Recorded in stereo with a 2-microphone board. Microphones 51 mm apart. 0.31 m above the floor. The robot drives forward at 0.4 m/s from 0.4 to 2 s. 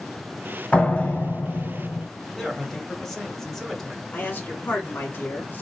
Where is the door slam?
30° left (ahead or behind), 1.2 m; by 2.1 s 40° left (ahead or behind), 1.0 m.